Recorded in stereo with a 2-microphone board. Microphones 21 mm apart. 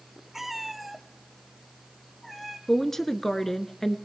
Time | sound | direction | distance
0.3 | a cat meowing | 10° right (ahead or behind) | 1.1 m
2.7 | a woman speaking | 20° left (ahead or behind) | 1.3 m